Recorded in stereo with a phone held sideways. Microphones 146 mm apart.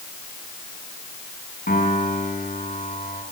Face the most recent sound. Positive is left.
turn(degrees=80)